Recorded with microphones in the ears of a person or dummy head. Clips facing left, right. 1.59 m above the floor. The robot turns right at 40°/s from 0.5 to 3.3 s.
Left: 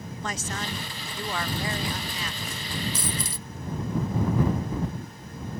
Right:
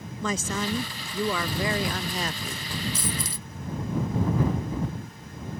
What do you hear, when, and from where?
0.2 s a woman speaking: 110° right; by 2.7 s 25° right
2.9 s a dropped coin: 50° left (ahead or behind); by 3.5 s 65° left (ahead or behind)